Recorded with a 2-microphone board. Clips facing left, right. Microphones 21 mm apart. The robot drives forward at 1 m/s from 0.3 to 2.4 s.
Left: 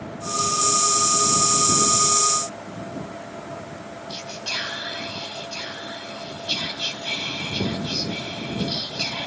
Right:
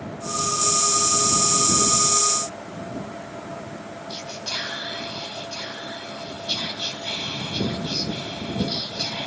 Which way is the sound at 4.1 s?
55° left (ahead or behind).